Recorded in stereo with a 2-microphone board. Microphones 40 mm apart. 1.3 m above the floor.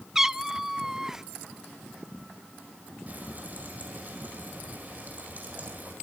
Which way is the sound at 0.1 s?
10° right (ahead or behind).